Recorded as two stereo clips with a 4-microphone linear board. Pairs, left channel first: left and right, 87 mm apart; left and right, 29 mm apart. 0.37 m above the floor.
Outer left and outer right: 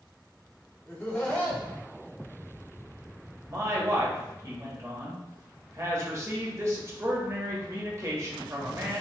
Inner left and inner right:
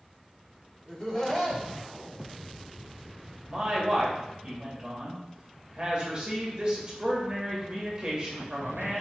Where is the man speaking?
35° right (ahead or behind), 1.1 m.